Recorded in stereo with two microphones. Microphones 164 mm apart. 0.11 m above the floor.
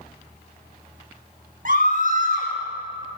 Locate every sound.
1.6 s a scream: 60° right (ahead or behind), 6.5 m